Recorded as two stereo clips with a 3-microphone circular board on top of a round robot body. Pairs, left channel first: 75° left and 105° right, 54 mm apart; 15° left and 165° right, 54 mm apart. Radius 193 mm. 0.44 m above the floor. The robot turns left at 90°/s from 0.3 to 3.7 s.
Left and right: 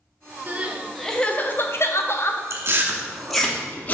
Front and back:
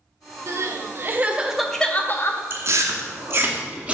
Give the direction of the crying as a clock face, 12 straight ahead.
5 o'clock.